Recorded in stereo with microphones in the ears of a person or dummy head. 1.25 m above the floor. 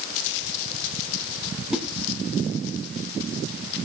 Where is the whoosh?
Centre (ahead or behind), 2.5 m.